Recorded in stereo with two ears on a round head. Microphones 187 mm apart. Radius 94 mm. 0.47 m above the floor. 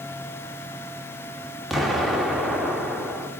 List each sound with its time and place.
1.7 s an explosion: centre (ahead or behind), 0.8 m